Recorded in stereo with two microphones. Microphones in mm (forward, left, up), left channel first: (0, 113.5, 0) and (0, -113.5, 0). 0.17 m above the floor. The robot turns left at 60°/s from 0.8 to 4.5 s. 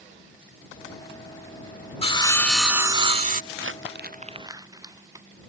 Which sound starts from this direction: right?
Crumpling, at 3.5 s.